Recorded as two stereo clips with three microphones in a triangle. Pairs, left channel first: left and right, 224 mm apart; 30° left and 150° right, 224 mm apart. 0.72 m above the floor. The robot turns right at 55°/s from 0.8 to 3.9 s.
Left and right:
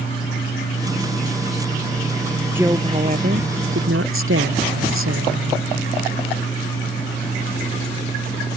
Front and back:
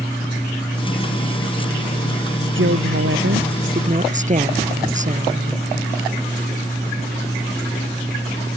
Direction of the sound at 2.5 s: 170° right.